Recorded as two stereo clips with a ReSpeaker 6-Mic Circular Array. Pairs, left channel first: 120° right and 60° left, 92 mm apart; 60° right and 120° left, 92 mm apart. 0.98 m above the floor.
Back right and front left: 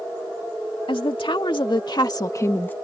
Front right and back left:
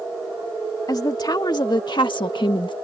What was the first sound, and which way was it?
A woman speaking, 105° right.